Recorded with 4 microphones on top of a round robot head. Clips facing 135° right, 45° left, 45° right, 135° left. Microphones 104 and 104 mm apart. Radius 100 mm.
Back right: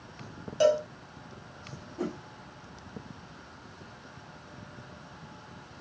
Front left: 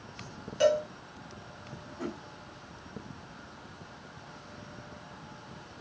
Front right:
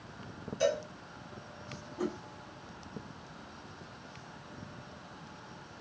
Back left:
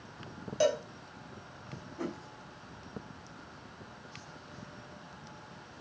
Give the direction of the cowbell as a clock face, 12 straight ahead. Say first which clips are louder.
Back right 1 dB, back left 2 dB; 7 o'clock.